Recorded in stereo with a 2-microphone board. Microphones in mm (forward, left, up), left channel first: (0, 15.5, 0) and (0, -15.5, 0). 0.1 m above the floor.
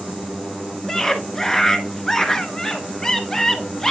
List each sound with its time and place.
0.9 s a scream: 15° left (ahead or behind), 1.2 m